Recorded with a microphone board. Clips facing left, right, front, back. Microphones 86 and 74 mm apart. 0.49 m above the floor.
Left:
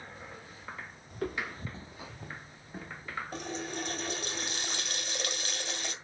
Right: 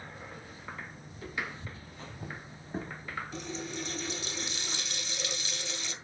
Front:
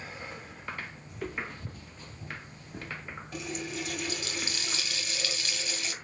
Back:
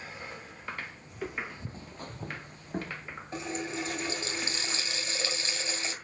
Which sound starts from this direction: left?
Footsteps, at 1.1 s.